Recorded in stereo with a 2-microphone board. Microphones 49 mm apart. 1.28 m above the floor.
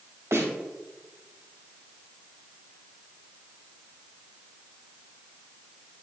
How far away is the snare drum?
About 2.5 m.